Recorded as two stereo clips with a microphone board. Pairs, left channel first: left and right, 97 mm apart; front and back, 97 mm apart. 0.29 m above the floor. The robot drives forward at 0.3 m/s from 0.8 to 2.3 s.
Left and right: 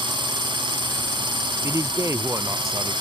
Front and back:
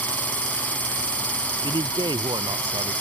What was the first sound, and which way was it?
A drone, 70° right.